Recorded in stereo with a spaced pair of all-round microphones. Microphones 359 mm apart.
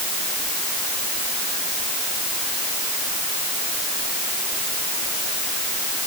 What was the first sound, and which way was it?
Only background noise.